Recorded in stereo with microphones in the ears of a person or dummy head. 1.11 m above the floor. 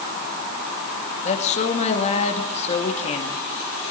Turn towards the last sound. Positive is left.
turn(degrees=40)  # may be behind; listen again after turning